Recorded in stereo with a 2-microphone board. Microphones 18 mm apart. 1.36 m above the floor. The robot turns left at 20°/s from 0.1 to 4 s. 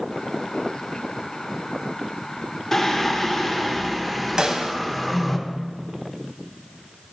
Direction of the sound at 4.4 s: 45° right (ahead or behind).